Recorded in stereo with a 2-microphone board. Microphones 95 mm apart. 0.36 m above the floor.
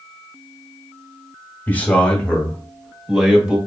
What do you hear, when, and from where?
1.7 s a man speaking: 20° left (ahead or behind), 1.2 m; by 3.6 s 15° right (ahead or behind), 1.6 m